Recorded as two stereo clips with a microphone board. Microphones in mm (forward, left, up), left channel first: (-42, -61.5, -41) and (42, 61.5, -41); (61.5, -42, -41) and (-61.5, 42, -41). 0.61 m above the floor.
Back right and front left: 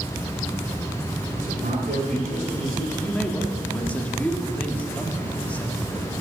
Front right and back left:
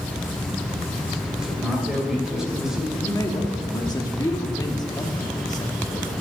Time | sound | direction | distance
1.4 | a man speaking | 60° left | 2.5 m
3.0 | a man speaking | 55° right | 1.2 m